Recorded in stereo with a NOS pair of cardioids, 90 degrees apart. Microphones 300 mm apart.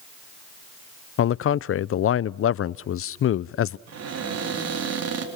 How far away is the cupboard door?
About 4 m.